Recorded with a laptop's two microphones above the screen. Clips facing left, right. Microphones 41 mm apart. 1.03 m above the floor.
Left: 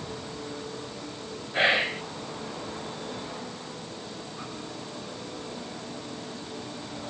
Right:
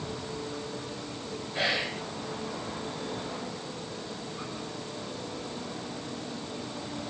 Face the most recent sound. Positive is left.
turn(degrees=35)  # may be behind; listen again after turning